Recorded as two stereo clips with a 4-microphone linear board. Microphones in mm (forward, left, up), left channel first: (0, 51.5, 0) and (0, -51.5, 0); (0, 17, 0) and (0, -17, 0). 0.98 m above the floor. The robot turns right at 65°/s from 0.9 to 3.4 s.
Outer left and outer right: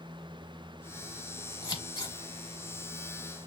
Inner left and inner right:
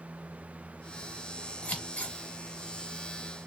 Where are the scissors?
35° left (ahead or behind), 0.9 m.